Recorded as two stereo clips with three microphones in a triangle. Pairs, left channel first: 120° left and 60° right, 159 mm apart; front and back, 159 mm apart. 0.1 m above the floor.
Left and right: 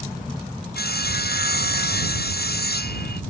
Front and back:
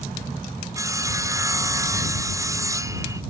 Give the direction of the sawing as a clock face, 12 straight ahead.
8 o'clock.